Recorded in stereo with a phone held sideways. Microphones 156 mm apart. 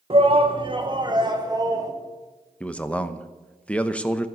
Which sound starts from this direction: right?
A shout, at 0.1 s.